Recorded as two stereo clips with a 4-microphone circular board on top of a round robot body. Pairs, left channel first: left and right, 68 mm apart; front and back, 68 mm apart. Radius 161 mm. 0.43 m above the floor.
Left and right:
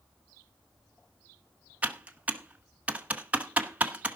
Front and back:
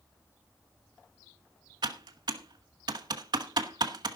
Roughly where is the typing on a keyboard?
Behind.